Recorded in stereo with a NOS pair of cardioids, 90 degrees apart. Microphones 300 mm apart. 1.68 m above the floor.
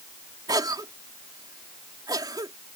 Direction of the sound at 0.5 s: 15° right.